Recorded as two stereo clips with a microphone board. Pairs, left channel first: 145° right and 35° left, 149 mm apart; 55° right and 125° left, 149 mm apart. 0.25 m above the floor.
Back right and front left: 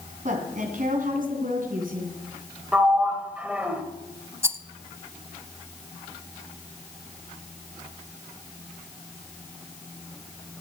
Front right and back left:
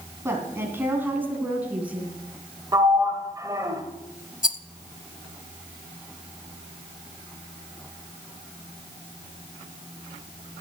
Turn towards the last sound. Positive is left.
turn(degrees=-35)